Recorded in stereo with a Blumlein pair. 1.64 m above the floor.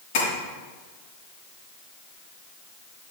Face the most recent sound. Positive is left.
turn(degrees=45)